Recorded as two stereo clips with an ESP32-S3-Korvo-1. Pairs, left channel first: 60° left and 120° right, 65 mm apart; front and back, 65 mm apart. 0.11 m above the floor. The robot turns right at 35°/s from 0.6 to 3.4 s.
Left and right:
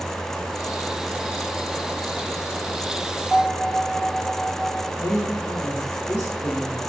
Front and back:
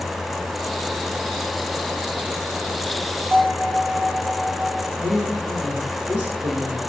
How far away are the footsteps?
I don't hear footsteps.